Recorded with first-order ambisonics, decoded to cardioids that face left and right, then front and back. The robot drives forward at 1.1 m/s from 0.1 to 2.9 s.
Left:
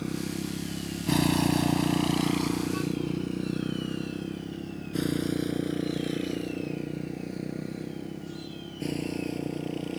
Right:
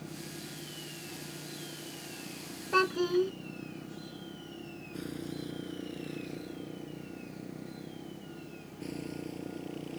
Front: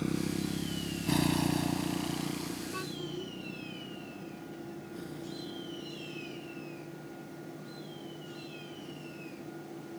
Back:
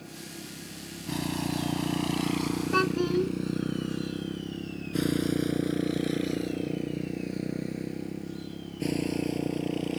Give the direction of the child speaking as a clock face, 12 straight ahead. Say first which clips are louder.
Right 5 dB, back 13 dB; 5 o'clock.